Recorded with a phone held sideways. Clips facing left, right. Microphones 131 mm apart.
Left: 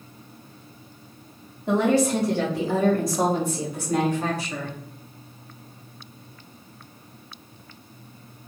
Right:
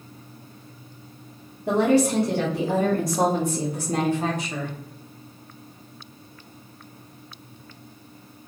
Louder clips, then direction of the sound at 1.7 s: Right 1 dB; 70° right (ahead or behind).